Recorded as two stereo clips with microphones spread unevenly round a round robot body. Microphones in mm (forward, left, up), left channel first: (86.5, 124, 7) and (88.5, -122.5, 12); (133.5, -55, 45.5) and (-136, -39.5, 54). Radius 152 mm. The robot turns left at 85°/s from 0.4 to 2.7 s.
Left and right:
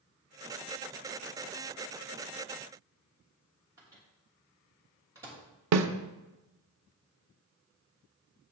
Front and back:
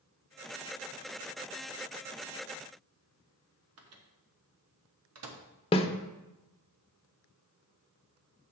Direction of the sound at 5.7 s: 75° right.